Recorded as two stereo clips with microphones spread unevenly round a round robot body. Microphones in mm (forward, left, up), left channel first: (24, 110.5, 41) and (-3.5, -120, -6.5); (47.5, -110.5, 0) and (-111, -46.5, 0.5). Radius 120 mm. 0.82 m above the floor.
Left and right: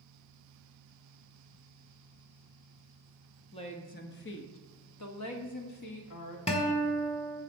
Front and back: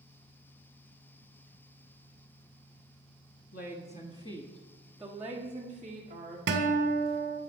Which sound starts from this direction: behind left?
A guitar, at 6.5 s.